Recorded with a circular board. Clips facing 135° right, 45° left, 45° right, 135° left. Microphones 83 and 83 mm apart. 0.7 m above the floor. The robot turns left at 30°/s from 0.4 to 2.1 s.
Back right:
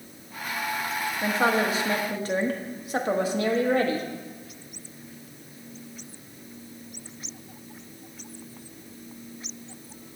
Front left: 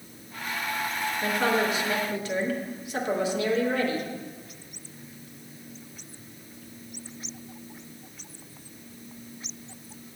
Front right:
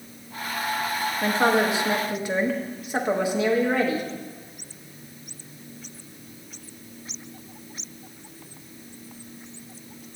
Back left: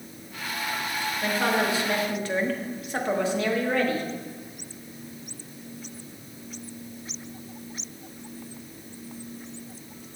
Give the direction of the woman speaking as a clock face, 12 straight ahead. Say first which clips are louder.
Back right 2 dB, front right 4 dB; 3 o'clock.